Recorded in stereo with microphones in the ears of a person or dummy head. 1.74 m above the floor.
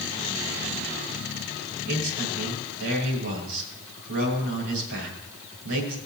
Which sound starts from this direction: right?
A man speaking, at 1.9 s.